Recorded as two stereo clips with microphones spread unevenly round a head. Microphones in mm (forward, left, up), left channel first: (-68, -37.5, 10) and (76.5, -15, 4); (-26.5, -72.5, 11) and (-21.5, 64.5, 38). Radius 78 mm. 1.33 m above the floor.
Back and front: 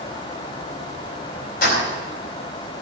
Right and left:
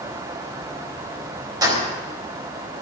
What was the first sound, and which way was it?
Keys jangling, 150° left.